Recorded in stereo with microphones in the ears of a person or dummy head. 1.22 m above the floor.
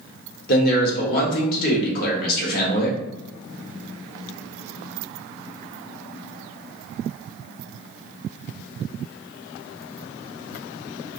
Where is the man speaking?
45° left (ahead or behind), 1.1 m.